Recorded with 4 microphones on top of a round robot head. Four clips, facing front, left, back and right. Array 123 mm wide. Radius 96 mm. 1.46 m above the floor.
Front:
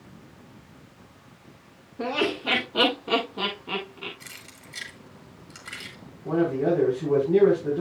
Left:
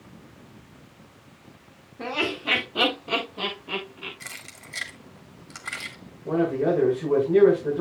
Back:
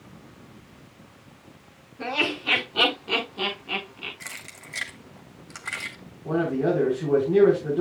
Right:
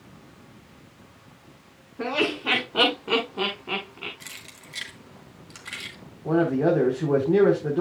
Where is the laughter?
60° right, 7 m.